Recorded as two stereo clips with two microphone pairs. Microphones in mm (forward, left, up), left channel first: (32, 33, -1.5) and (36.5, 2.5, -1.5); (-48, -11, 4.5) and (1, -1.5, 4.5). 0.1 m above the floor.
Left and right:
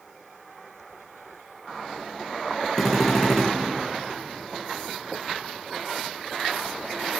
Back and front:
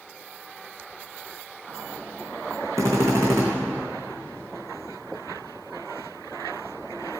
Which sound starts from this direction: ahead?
A drill, at 2.8 s.